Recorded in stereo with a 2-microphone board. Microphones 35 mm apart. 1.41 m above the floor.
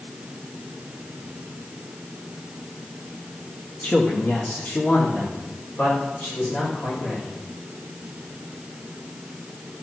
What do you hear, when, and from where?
3.8 s a man speaking: 40° left (ahead or behind), 1.4 m; by 7.3 s 65° left (ahead or behind), 5 m